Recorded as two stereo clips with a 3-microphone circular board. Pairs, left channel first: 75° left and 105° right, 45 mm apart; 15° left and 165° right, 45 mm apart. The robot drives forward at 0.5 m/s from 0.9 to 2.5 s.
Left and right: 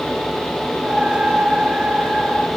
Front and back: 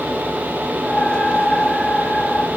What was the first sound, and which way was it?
Only background noise.